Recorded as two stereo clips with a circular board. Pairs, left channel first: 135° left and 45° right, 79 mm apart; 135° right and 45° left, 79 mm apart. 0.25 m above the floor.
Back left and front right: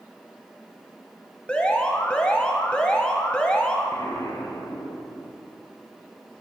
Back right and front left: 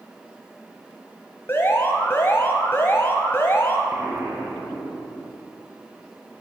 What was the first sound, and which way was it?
An alarm, 160° right.